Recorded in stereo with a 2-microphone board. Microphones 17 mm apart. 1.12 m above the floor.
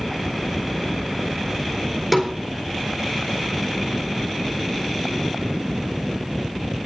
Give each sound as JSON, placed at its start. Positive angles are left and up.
{"t": 2.1, "sound": "a snare drum", "side_deg": -10, "distance_m": 4.0}